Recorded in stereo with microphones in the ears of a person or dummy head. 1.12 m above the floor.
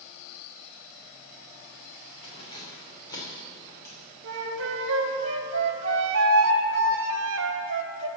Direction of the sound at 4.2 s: 70° right (ahead or behind).